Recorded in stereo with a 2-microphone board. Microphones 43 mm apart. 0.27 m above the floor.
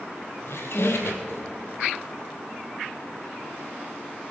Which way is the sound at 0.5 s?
65° left (ahead or behind).